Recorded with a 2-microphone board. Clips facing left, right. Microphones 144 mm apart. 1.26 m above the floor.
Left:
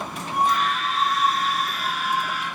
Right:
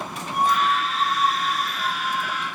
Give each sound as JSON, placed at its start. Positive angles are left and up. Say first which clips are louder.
{"t": 0.3, "sound": "a scream", "louder": "right 1 dB", "side_deg": 20, "distance_m": 3.5}